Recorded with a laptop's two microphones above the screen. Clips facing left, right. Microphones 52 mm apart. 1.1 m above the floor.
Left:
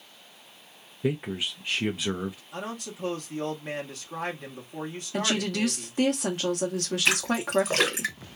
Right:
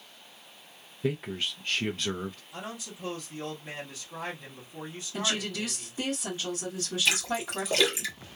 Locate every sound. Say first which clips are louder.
1.0 s a man speaking: left 2 dB; 5° left (ahead or behind), 0.5 m
2.5 s a man speaking: left 4 dB; 60° left (ahead or behind), 1.2 m
5.1 s a woman speaking: left 4 dB; 65° left (ahead or behind), 1.1 m
7.0 s a splash: left 3 dB; 55° left (ahead or behind), 1.7 m